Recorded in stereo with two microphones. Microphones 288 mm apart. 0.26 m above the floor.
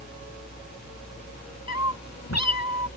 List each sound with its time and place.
1.7 s a cat meowing: 65° left (ahead or behind)